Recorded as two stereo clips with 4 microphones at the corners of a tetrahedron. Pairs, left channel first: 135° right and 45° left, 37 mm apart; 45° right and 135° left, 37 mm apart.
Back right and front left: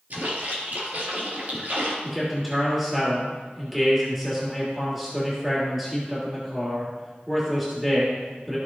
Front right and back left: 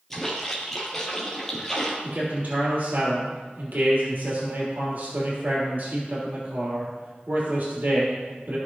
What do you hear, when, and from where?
0.1 s a splash: 35° left, 2.5 m
2.0 s a man speaking: 130° left, 3 m